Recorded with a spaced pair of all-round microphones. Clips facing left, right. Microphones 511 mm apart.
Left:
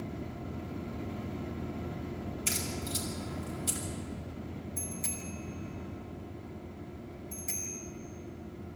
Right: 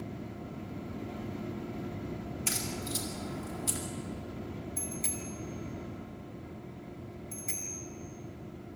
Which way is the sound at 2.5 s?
55° left (ahead or behind).